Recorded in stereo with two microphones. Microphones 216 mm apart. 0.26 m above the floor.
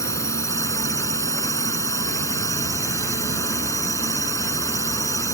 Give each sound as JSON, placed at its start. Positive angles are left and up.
{"t": 0.0, "sound": "a drone", "side_deg": 15}